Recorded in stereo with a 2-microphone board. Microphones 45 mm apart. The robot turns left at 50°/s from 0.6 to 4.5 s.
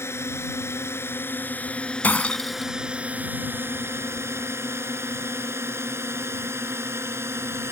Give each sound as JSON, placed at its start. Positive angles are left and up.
{"t": 0.0, "sound": "a drone", "side_deg": 75}
{"t": 2.0, "sound": "breaking glass", "azimuth_deg": 50}